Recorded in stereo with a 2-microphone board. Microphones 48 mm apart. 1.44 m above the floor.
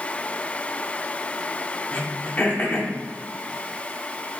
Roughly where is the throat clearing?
Left.